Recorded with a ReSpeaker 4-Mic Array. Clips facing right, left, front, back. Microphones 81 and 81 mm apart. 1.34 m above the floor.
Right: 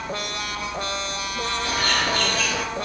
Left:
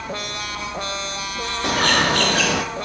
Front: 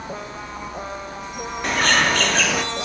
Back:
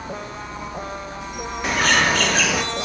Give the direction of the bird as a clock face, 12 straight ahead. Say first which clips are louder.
Left 7 dB, even; 9 o'clock.